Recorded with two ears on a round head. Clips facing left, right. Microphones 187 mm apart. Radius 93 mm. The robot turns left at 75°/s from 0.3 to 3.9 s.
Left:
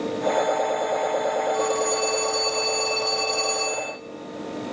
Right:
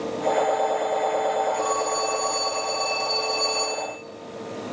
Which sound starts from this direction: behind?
A phone ringing, at 1.5 s.